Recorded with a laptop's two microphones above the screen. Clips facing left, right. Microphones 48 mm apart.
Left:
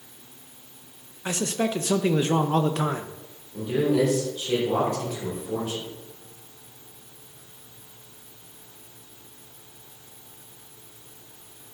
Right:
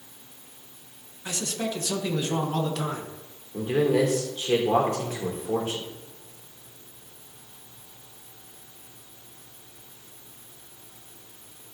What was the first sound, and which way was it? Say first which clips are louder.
A man speaking: left 5 dB; 35° left (ahead or behind).